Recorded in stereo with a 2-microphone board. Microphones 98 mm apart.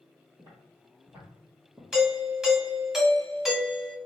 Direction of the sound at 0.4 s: 40° right (ahead or behind).